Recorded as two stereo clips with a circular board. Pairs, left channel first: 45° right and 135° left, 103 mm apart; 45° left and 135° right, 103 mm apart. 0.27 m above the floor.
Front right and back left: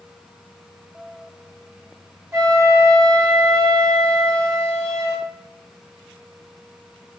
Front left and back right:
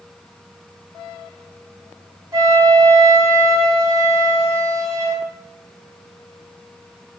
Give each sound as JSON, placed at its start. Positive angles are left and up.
{"t": 2.3, "sound": "a flute", "azimuth_deg": -175, "distance_m": 2.5}